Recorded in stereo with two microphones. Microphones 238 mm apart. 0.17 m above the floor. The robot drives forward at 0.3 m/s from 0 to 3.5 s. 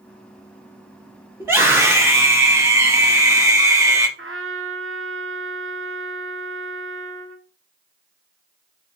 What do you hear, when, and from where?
1.4 s a scream: 10° right (ahead or behind), 3.5 m; by 4.1 s 15° right (ahead or behind), 3 m
4.2 s a trumpet: 60° right (ahead or behind), 1.1 m